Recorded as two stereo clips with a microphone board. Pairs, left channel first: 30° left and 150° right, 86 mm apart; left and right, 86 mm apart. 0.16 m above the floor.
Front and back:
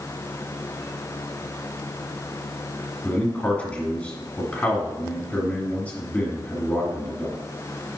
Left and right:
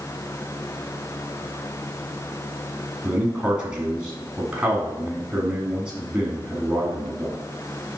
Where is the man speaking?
20° right, 1.7 m.